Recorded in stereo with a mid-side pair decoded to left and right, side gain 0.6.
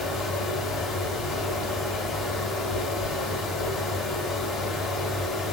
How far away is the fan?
About 1.6 m.